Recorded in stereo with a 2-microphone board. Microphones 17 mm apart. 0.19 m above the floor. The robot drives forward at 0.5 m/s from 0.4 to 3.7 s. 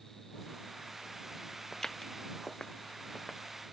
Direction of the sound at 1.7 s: 30° left (ahead or behind).